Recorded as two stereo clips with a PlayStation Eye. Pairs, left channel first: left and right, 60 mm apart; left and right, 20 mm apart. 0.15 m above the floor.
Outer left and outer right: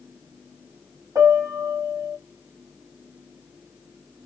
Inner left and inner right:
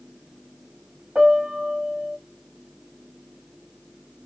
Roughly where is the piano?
Right.